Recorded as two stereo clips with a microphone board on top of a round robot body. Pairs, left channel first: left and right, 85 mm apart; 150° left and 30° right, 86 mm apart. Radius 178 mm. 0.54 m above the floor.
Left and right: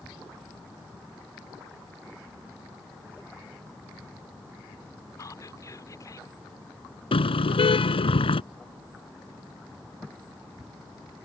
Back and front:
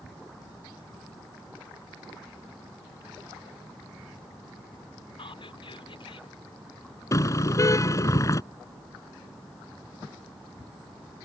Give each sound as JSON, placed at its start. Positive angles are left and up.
{"t": 5.2, "sound": "whispering", "azimuth_deg": 140}
{"t": 7.1, "sound": "a car horn", "azimuth_deg": 95}